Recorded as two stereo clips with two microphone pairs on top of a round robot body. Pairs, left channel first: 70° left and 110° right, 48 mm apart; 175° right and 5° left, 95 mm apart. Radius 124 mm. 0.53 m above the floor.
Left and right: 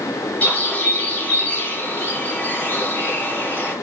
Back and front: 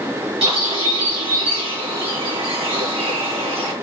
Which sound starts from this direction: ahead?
A bird, at 0.4 s.